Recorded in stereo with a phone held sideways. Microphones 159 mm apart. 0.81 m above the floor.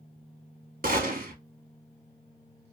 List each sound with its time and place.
0.8 s a gunshot: 60° right (ahead or behind), 0.8 m